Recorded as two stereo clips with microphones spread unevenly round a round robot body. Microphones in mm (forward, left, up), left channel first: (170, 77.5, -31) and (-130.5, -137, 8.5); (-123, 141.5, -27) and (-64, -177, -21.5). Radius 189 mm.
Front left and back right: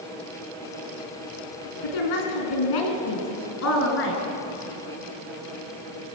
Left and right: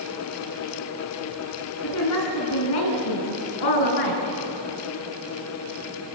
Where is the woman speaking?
45° left, 3.5 m; by 4.2 s 100° left, 4.5 m.